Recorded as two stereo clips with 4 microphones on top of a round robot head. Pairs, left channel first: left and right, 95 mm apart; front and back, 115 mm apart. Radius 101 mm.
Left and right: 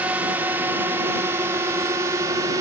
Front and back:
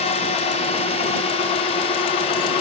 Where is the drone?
15° right; by 2.6 s 35° right.